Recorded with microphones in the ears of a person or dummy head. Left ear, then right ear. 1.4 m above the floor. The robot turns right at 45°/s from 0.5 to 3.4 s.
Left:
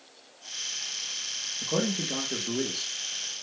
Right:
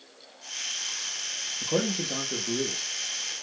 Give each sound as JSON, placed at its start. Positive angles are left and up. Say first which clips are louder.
{"t": 1.6, "sound": "a man speaking", "louder": "right 1 dB", "azimuth_deg": -35, "distance_m": 0.5}